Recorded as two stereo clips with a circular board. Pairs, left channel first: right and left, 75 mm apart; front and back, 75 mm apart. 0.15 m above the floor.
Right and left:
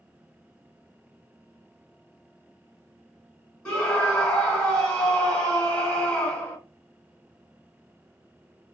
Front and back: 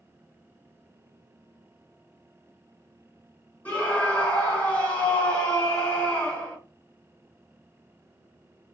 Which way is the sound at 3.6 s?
30° right.